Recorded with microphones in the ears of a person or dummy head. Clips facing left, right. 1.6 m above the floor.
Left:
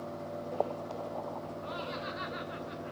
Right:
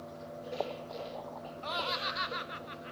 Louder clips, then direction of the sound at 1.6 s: Even; 65° right (ahead or behind).